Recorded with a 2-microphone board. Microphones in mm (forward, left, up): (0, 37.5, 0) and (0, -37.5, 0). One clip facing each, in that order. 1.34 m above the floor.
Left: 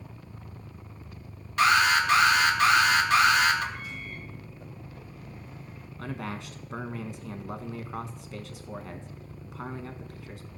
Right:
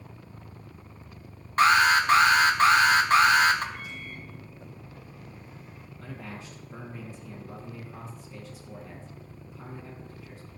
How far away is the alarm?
About 1.5 m.